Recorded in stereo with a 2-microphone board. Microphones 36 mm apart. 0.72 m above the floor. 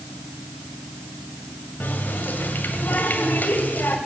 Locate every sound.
1.8 s a running tap: 60° left (ahead or behind), 2 m